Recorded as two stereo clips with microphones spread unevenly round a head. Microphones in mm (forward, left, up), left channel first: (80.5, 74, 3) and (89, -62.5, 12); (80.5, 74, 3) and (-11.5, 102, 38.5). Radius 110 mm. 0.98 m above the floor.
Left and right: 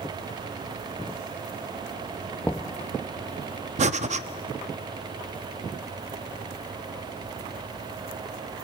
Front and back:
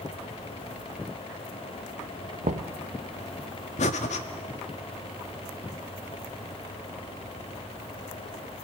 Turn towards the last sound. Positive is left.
turn(degrees=-60)